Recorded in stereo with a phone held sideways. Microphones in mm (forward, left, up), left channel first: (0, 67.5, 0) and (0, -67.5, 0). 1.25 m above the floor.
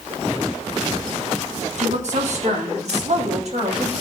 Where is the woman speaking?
60° right (ahead or behind), 1.4 m; by 3.9 s 55° right (ahead or behind), 2.5 m.